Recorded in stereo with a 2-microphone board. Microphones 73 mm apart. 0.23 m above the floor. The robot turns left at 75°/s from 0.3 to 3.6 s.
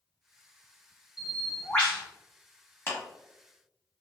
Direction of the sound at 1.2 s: 165° right.